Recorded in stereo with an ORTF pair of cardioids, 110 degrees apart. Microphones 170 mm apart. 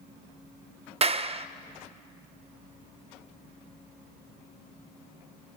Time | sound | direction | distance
1.0 | a clap | 35° right | 0.5 m